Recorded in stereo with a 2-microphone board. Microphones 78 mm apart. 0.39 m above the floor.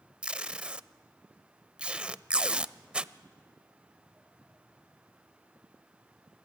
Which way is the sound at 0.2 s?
15° right (ahead or behind).